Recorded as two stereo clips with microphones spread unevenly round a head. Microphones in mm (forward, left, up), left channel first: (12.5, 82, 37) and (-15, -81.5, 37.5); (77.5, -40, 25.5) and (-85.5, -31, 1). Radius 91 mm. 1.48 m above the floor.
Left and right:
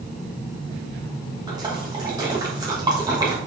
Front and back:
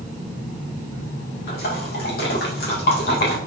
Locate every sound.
1.5 s a splash: 30° right, 2.5 m